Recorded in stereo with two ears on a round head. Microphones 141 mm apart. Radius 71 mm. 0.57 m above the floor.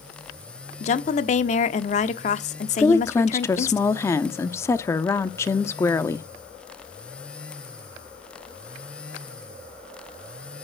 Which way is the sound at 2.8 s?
15° left (ahead or behind).